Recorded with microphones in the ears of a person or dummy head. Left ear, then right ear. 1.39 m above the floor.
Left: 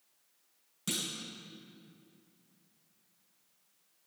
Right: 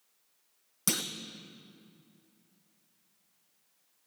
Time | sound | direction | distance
0.9 | a clunk | 45° right (ahead or behind) | 0.7 m